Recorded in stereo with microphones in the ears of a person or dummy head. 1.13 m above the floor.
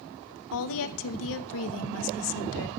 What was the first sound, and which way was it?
A woman speaking, 75° left (ahead or behind).